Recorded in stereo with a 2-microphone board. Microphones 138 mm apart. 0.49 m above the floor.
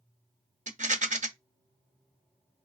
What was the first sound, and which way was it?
A rattle, 60° right (ahead or behind).